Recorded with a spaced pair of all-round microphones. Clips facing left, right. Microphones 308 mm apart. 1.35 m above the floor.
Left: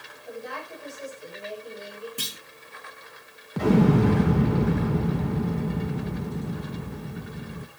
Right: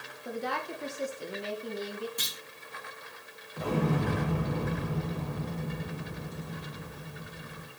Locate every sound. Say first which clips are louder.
0.2 s a woman speaking: right 2 dB; 75° right (ahead or behind), 3.5 m
2.2 s a clunk: left 5 dB; 35° left (ahead or behind), 1.7 m
3.6 s an explosion: left 10 dB; 80° left, 1.2 m